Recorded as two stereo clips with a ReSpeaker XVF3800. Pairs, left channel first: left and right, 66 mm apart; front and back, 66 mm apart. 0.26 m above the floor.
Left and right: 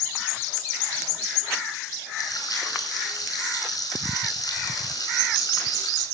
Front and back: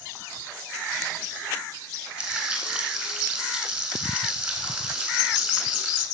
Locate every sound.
2.2 s frying: 100° left, 3.5 m